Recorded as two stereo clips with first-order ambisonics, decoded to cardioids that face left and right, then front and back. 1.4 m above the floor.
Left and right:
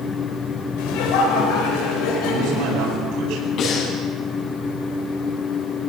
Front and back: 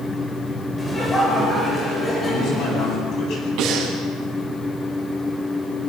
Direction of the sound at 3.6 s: 140° left.